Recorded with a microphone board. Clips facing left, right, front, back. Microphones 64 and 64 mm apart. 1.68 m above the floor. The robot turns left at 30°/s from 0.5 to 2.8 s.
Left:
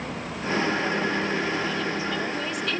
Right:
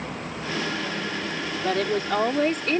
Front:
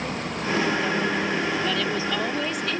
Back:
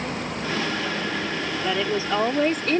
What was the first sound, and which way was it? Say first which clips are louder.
A woman speaking: right 3 dB, back 1 dB; 105° right.